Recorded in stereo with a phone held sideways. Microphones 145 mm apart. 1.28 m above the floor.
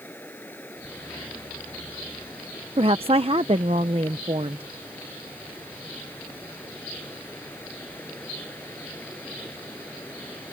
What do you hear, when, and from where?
0.0 s running water: 15° left (ahead or behind)
2.8 s a woman speaking: 40° right (ahead or behind)